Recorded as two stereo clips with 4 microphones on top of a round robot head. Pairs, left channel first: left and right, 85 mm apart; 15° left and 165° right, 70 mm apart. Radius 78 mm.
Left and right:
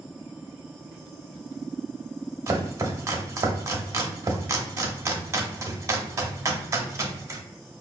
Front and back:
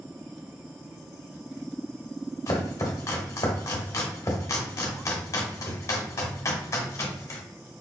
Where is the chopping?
35° right, 0.7 m.